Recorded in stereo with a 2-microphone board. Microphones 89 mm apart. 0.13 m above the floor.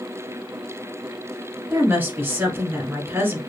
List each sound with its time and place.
1.7 s a woman speaking: 20° right (ahead or behind), 1.2 m